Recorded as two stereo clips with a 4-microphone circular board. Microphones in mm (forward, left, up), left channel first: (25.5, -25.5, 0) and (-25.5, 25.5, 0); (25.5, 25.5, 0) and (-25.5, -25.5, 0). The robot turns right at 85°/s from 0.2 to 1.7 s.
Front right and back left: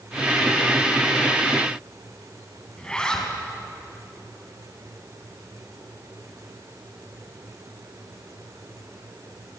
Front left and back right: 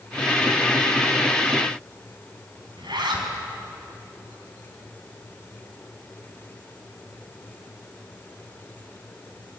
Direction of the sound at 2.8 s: 125° right.